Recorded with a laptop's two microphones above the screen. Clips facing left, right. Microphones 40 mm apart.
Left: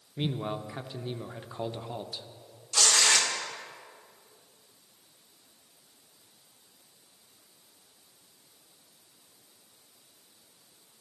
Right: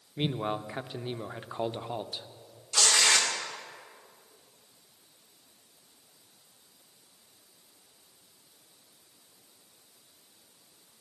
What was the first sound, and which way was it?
A man speaking, 25° right (ahead or behind).